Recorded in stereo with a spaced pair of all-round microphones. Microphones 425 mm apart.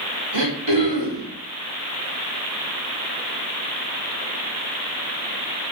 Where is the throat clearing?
80° right, 3.5 m.